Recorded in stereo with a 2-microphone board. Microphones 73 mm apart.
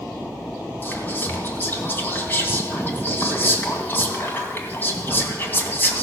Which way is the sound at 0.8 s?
30° left (ahead or behind).